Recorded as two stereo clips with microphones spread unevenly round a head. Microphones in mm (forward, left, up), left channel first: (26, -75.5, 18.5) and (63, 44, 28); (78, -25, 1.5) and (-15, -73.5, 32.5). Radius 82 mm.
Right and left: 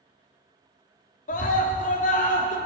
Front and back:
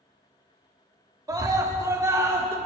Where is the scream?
100° right, 4 m; by 2.6 s 90° right, 5 m.